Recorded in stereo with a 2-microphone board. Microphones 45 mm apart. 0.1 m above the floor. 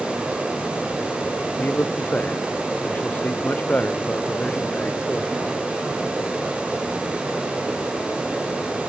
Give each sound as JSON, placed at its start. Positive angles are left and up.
{"t": 1.6, "sound": "a man speaking", "side_deg": 40}